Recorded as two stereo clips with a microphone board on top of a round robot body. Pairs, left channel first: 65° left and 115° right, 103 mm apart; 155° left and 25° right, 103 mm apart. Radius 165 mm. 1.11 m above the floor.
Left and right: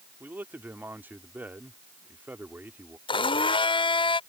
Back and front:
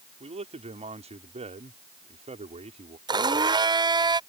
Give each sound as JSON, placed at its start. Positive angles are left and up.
{"t": 0.2, "sound": "a man speaking", "azimuth_deg": -40}
{"t": 3.1, "sound": "a blender", "azimuth_deg": 25}